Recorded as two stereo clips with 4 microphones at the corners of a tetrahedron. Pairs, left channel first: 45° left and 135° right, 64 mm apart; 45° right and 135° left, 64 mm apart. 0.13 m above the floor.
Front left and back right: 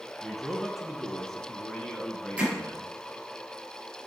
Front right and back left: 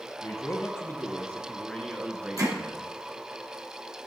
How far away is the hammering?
About 2.5 m.